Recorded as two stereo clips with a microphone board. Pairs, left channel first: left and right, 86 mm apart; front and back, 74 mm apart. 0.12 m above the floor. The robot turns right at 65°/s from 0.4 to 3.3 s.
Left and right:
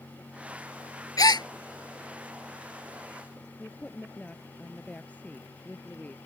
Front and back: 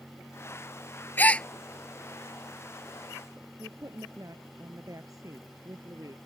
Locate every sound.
1.2 s a gasp: 60° left; by 1.5 s 80° left
3.6 s a woman speaking: 160° left